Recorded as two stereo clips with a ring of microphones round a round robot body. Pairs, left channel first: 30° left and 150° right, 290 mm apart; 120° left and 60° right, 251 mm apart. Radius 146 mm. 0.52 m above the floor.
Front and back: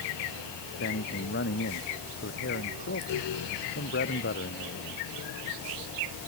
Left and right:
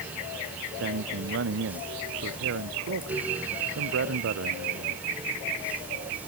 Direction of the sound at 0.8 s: 25° right.